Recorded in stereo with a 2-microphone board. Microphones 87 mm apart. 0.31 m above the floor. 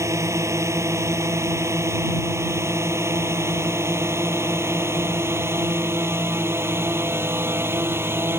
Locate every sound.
0.0 s a drone: 35° right (ahead or behind); by 8.4 s 25° right (ahead or behind)